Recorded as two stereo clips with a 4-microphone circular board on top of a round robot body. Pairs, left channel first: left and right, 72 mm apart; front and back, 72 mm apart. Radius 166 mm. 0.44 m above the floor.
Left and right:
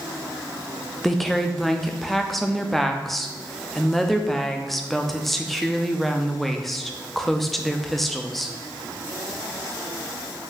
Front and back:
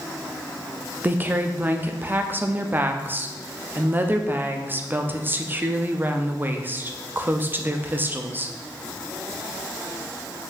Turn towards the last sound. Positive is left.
turn(degrees=175)